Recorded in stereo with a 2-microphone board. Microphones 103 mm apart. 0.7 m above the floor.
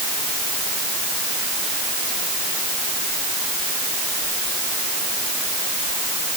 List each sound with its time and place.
Only background noise.